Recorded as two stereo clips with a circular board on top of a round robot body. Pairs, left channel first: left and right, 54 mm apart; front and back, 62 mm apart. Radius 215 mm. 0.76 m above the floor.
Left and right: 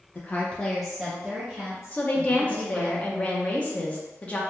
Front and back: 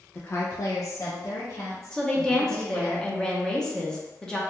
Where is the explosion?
I don't hear an explosion.